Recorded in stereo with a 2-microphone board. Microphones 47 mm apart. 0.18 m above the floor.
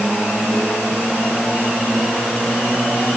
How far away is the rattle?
No rattle in this recording.